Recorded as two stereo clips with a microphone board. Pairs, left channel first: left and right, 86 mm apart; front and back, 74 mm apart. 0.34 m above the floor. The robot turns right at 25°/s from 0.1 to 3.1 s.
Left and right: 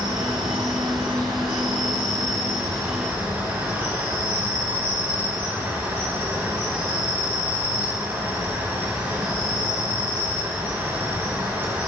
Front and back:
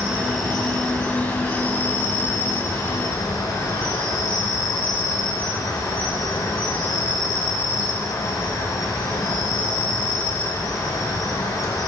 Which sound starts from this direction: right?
An insect, at 0.0 s.